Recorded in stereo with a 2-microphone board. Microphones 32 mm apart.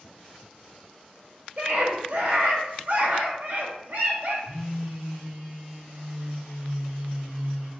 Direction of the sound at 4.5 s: 75° right (ahead or behind).